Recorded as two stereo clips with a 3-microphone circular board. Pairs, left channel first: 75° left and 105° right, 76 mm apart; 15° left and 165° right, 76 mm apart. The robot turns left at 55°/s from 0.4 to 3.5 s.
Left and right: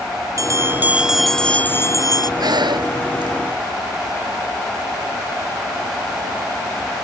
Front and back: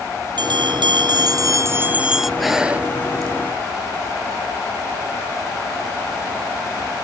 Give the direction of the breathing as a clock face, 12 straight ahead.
2 o'clock.